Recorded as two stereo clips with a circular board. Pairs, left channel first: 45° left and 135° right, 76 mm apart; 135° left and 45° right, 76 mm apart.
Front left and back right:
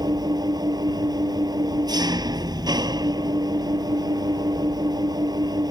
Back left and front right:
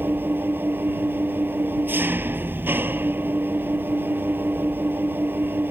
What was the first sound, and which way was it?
An engine running, 105° right.